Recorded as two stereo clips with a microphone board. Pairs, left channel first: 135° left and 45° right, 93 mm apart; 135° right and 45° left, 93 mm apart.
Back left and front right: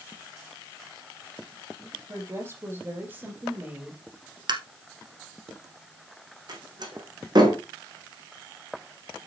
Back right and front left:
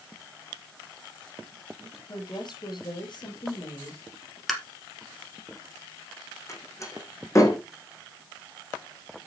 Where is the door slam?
80° right, 3.5 m.